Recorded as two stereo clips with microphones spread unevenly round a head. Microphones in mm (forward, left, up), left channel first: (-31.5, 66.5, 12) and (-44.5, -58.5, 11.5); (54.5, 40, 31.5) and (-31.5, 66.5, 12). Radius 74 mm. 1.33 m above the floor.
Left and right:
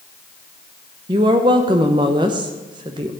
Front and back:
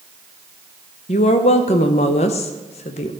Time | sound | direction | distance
1.1 | a woman speaking | 30° right | 0.7 m